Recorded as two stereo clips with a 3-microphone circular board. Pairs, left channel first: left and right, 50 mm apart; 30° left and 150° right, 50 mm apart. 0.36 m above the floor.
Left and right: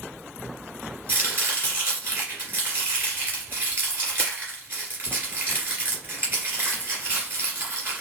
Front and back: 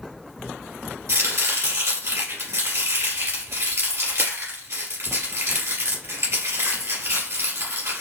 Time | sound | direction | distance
1.1 | chopping | 140° right | 2 m